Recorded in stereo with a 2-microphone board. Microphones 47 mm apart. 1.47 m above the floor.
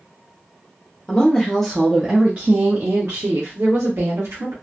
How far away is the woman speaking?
About 0.9 m.